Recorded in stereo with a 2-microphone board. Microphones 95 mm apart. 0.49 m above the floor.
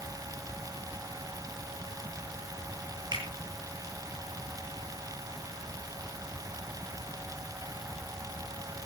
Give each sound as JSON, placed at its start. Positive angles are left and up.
{"t": 3.1, "sound": "a finger snap", "side_deg": -50, "distance_m": 9.0}